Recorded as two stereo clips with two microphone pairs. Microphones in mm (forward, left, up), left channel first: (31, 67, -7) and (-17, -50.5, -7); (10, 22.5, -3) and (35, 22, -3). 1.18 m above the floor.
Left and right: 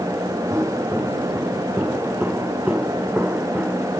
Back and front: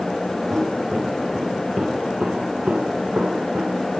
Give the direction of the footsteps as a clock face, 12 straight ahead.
1 o'clock.